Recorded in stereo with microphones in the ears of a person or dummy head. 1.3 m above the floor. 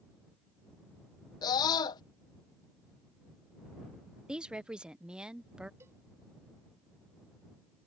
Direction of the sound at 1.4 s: 20° left (ahead or behind).